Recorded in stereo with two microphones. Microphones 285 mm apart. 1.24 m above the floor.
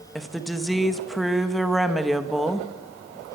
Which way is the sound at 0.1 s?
Centre (ahead or behind).